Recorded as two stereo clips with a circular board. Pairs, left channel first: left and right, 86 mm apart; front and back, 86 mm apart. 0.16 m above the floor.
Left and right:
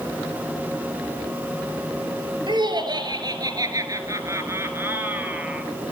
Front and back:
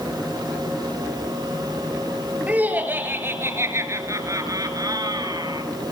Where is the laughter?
110° right, 4 m; by 5.7 s 165° right, 3 m.